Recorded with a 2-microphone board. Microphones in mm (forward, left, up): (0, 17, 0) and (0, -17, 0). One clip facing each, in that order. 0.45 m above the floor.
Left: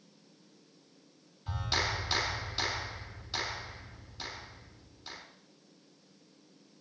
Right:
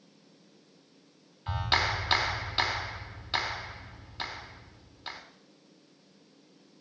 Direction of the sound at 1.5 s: 45° right (ahead or behind).